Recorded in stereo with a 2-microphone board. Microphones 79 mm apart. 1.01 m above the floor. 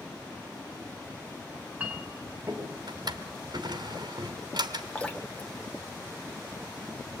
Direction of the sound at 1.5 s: 20° right (ahead or behind).